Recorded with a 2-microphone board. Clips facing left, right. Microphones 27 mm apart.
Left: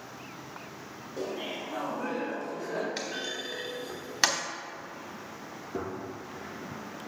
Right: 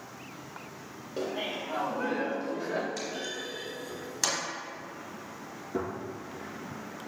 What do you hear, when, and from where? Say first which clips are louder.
1.2 s laughter: right 2 dB; 50° right (ahead or behind), 1.5 m; by 2.9 s 20° right (ahead or behind), 1.9 m
3.0 s a clunk: left 1 dB; 35° left (ahead or behind), 0.9 m
5.7 s a gunshot: right 2 dB; 20° right (ahead or behind), 1.8 m